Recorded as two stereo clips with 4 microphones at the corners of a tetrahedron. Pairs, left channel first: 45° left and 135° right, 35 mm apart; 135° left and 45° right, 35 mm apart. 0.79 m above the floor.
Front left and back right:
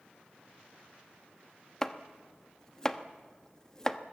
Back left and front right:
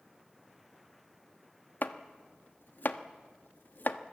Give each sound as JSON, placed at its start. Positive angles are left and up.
{"t": 1.8, "sound": "chopping", "azimuth_deg": 120, "distance_m": 1.0}